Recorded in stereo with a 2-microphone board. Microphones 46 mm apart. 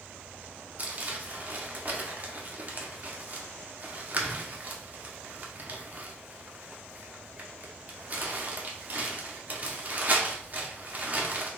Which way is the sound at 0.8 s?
40° right (ahead or behind).